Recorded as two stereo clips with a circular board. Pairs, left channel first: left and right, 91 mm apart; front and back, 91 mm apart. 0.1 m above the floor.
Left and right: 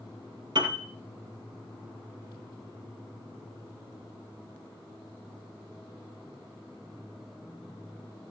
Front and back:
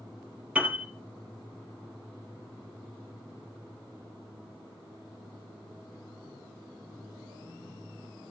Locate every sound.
0.6 s a piano: 105° right, 2.5 m